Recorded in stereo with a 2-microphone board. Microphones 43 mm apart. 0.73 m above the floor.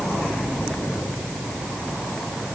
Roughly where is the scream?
I don't hear a scream.